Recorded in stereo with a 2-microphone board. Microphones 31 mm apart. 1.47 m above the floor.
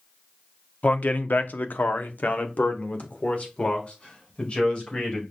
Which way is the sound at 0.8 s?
55° left (ahead or behind).